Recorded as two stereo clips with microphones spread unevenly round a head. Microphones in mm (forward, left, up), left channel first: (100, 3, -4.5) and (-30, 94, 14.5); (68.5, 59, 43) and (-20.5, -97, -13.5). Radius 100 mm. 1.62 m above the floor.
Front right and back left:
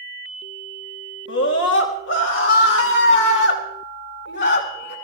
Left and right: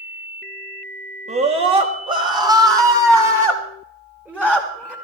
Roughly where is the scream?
Ahead right.